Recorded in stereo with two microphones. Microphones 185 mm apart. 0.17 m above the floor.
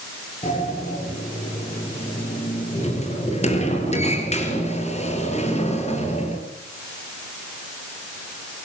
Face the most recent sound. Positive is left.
turn(degrees=35)  # may be behind; listen again after turning